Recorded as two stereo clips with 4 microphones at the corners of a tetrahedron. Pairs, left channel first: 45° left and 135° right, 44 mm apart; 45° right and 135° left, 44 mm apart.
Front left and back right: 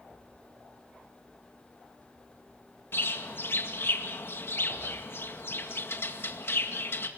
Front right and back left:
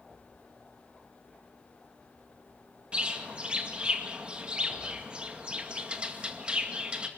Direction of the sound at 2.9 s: 70° left.